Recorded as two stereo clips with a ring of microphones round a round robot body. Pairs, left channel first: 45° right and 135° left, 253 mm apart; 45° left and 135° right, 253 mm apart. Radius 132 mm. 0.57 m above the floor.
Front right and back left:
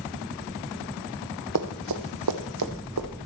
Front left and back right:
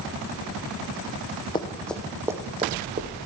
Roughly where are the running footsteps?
Behind left.